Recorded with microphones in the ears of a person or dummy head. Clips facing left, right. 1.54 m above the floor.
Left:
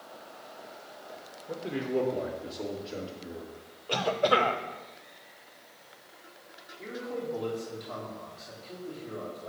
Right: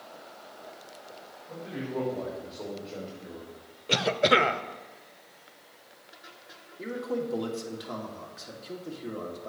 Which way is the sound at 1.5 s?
45° left (ahead or behind).